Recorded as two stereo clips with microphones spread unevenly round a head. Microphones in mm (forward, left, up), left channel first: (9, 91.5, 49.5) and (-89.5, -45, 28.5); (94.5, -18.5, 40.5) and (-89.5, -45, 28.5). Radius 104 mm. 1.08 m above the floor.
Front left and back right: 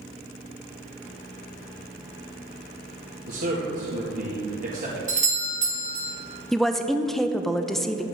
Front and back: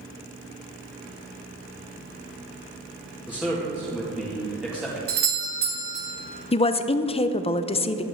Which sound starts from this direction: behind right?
A doorbell, at 5.1 s.